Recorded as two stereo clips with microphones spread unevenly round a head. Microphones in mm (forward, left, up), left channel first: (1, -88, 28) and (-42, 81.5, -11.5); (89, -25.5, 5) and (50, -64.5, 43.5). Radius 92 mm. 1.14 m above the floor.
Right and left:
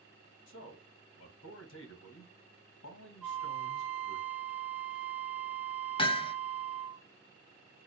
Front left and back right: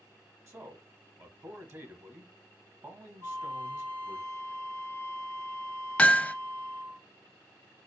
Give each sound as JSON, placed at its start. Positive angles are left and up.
{"t": 0.5, "sound": "a man speaking", "azimuth_deg": -90, "distance_m": 1.6}
{"t": 3.2, "sound": "a flute", "azimuth_deg": 180, "distance_m": 0.8}
{"t": 6.0, "sound": "hammering", "azimuth_deg": -5, "distance_m": 0.6}